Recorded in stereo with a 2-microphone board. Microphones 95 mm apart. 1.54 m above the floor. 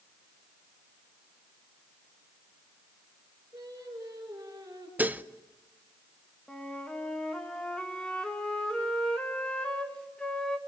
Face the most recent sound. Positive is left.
turn(degrees=10)  # may be behind; listen again after turning